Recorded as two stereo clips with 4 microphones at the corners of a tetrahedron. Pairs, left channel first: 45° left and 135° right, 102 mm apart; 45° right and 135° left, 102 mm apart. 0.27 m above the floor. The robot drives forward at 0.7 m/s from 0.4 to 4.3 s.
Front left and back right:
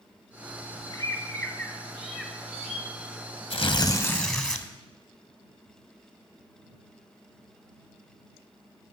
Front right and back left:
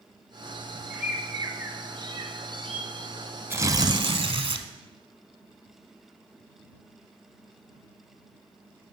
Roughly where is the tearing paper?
Ahead left.